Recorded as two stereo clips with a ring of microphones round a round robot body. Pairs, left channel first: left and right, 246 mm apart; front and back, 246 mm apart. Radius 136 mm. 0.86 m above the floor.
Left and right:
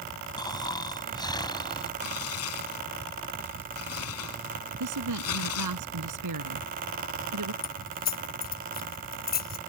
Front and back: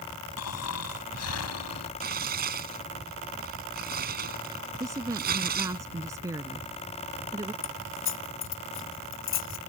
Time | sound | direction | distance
0.4 | snoring | 15° left | ?
2.0 | tearing paper | 130° left | ?
4.8 | a woman speaking | 100° right | ?
7.6 | keys jangling | 35° left | ?